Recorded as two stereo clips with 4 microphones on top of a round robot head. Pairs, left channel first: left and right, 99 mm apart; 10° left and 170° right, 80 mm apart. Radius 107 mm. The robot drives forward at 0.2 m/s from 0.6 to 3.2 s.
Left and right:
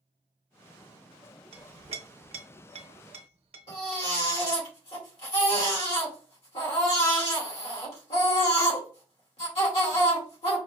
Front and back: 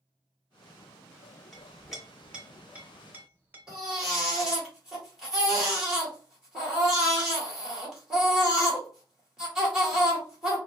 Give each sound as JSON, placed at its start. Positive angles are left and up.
{"t": 1.5, "sound": "a clink", "azimuth_deg": -75, "distance_m": 0.7}
{"t": 3.7, "sound": "a baby crying", "azimuth_deg": 110, "distance_m": 2.5}